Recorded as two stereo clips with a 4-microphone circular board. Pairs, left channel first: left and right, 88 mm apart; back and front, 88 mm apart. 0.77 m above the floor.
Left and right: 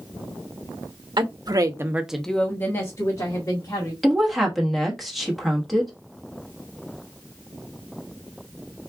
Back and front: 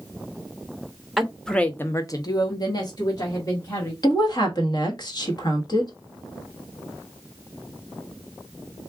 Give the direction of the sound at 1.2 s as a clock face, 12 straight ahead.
3 o'clock.